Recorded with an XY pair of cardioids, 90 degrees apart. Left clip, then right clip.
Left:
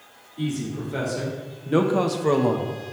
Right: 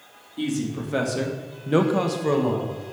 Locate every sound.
0.4 s a man speaking: 60° right, 2 m; by 2.7 s 50° left, 1.0 m